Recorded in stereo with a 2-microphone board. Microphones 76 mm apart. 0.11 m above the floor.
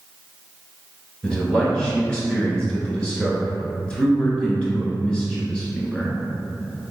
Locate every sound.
1.2 s a man speaking: 15° left (ahead or behind), 1.1 m